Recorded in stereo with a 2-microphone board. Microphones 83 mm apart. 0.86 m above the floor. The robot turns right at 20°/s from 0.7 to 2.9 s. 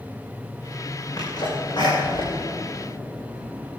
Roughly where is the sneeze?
Left.